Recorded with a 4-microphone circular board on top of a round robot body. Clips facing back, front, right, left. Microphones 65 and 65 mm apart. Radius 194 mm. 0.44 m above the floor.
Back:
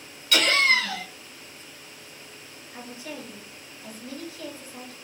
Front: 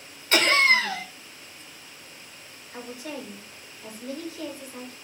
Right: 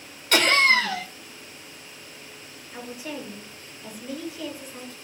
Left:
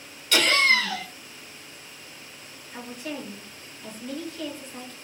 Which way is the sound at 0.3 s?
50° right.